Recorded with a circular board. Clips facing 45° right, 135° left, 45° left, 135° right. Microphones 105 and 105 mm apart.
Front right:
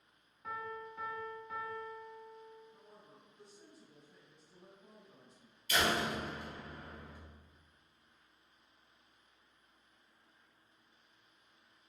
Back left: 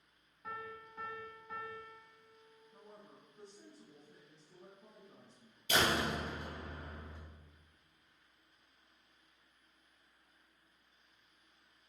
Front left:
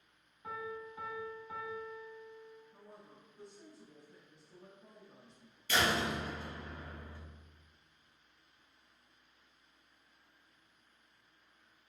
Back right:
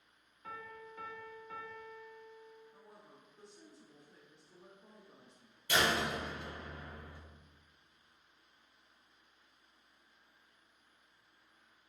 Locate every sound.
0.4 s a piano: 35° left, 0.9 m
2.7 s a woman speaking: 135° left, 1.2 m
5.7 s a door slam: 155° left, 1.8 m